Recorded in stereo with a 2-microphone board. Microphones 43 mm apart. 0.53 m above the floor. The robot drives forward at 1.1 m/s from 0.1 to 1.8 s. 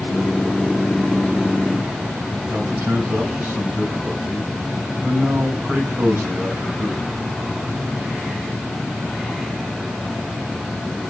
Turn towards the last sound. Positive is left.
turn(degrees=-75)  # may be behind; listen again after turning